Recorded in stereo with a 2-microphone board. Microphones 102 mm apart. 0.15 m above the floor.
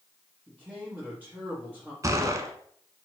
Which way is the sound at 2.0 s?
30° right (ahead or behind).